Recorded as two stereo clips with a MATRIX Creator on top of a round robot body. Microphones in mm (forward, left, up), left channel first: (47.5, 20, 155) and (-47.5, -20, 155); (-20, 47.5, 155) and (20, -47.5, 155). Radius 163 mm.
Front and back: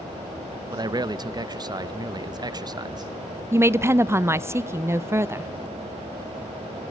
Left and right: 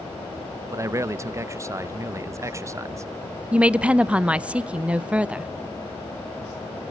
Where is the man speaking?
120° right, 0.6 m.